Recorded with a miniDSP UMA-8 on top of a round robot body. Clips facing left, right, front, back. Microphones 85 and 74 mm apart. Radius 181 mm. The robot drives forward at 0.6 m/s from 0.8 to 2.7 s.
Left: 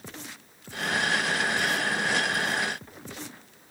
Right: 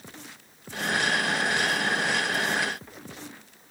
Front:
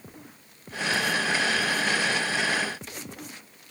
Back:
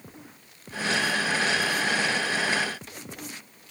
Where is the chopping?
I don't hear chopping.